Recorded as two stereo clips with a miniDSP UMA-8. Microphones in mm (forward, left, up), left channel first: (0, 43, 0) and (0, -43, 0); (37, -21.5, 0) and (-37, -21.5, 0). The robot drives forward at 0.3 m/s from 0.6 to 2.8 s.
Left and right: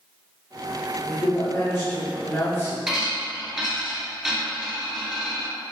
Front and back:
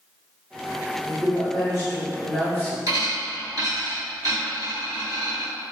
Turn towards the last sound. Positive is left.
turn(degrees=-175)